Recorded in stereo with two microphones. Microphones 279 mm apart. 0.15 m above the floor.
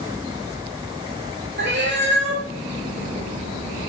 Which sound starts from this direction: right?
A cat meowing, at 1.6 s.